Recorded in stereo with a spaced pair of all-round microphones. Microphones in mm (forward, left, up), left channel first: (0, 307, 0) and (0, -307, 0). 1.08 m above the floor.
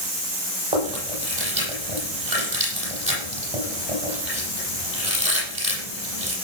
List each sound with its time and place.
0.7 s chewing: 70° right (ahead or behind), 8.5 m